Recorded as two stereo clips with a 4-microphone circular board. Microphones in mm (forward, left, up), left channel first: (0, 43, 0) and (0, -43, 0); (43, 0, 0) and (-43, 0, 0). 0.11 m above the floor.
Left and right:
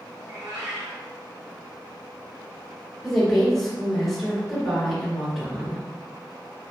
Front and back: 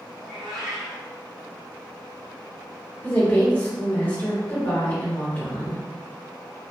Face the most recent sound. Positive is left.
turn(degrees=10)